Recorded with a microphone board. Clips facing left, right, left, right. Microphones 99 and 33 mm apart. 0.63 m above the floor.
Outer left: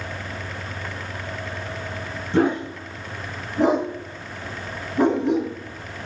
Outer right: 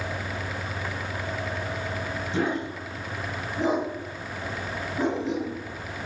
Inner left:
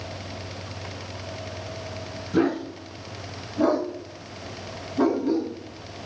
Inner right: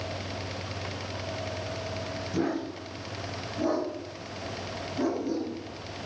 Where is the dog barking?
60° left (ahead or behind), 3 m.